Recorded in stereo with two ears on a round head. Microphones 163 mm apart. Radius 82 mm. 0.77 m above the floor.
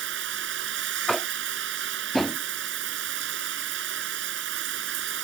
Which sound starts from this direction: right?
Running water, at 0.0 s.